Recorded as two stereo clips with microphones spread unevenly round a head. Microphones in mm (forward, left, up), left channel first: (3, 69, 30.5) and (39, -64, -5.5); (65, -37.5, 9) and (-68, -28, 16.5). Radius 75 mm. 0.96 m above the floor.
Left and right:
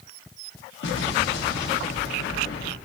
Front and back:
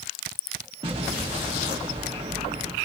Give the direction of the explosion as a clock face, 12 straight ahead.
8 o'clock.